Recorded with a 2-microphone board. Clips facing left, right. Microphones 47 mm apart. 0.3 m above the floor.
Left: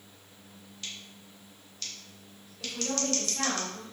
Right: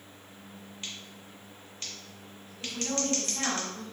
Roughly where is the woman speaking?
Left.